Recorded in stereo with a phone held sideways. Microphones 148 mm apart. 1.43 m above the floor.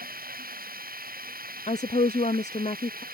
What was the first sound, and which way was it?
Running water, 80° right.